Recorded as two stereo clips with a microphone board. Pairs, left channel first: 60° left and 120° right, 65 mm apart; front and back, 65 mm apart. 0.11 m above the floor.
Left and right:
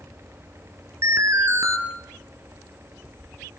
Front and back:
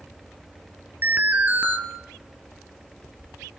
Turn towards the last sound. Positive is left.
turn(degrees=-125)